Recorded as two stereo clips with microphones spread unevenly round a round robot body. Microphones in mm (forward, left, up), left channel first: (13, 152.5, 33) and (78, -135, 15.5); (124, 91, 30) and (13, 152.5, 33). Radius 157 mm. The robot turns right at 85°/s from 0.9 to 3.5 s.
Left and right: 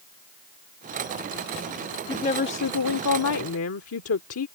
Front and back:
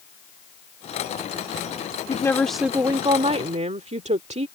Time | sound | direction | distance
2.1 | a woman speaking | 25° left | ?